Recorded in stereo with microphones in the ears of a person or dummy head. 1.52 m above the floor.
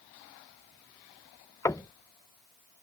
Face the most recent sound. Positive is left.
turn(degrees=20)  # may be behind; listen again after turning